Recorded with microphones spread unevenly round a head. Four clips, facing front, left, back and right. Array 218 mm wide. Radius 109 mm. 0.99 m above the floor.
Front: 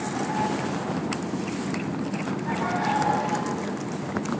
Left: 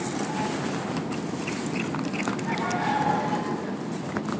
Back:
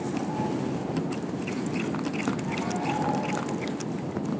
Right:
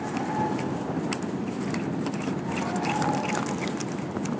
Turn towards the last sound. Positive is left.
No sound to turn to.